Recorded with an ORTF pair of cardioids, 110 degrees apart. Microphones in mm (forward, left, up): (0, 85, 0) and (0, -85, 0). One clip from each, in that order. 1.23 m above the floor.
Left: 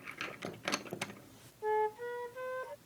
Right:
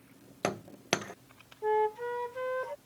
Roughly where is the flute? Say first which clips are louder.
Right 4 dB; ahead right.